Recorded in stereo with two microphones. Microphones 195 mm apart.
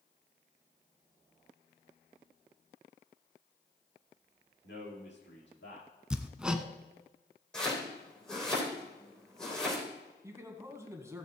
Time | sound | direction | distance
4.6 | a man speaking | 80° left | 6 m
6.1 | hammering | 5° right (ahead or behind) | 0.8 m
7.5 | chopping | 5° left (ahead or behind) | 4 m
10.2 | a man speaking | 15° right (ahead or behind) | 1.6 m